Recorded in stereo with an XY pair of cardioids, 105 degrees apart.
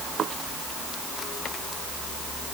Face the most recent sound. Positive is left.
No sound to turn to.